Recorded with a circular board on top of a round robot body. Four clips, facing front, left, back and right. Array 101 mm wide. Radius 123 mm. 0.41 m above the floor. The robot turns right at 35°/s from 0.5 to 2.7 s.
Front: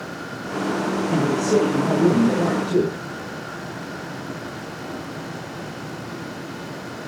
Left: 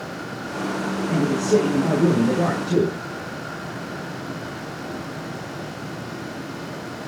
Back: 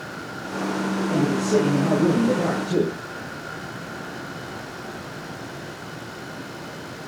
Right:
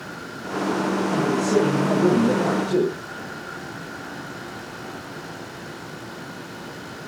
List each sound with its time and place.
1.1 s a man speaking: 30° left, 7.5 m; by 2.9 s 85° left, 7.5 m